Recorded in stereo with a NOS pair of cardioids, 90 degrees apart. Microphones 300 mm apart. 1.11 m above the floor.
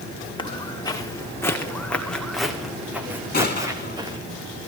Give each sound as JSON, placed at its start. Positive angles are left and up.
{"t": 0.4, "sound": "footsteps", "azimuth_deg": 15, "distance_m": 6.0}
{"t": 3.3, "sound": "a gunshot", "azimuth_deg": 30, "distance_m": 6.5}